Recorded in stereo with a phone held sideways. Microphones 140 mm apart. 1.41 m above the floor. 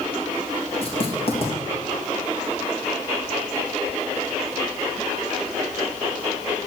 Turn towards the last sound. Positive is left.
turn(degrees=40)  # may be behind; listen again after turning